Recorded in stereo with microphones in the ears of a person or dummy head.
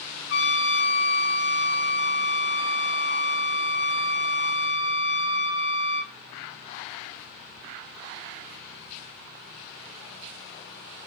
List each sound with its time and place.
0.3 s a trumpet: 85° left, 7 m